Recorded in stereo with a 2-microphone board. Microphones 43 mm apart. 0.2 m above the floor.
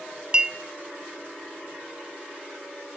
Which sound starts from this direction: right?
A clink, at 0.3 s.